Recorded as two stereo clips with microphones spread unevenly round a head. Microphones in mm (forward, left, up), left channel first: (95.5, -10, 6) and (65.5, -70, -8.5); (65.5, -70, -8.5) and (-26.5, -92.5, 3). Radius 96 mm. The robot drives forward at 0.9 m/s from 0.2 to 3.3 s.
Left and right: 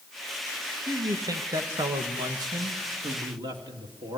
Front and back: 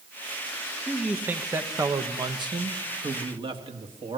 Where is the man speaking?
80° right, 1.8 m; by 4.2 s 140° right, 2.5 m.